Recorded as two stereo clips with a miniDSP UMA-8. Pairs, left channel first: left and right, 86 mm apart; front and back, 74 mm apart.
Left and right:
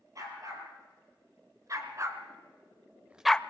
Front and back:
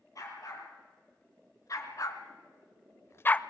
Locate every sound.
0.1 s a dog barking: 40° right, 4.5 m; by 3.4 s 55° left, 0.5 m